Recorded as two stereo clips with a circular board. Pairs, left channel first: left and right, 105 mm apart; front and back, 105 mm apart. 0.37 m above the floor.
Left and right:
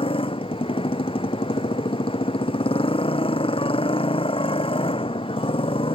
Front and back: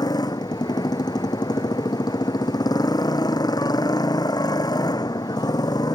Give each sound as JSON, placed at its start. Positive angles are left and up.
{"t": 0.0, "sound": "a motorcycle", "azimuth_deg": 55}